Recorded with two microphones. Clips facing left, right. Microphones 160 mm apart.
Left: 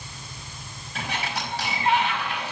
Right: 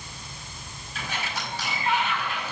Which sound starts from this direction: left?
A sliding door, at 0.9 s.